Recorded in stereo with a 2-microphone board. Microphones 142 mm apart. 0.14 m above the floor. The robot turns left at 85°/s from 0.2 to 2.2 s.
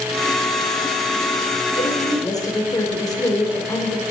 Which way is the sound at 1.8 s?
65° left.